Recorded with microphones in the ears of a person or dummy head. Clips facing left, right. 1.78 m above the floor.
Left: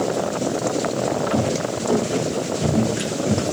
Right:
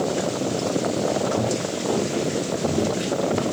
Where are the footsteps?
40° left (ahead or behind), 6 m; by 3.4 s 35° left (ahead or behind), 5.5 m.